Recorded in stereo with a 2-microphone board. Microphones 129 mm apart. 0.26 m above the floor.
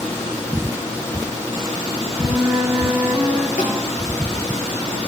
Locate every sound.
2.2 s a flute: 10° right (ahead or behind), 2.5 m
3.6 s a snare drum: 75° left (ahead or behind), 4.5 m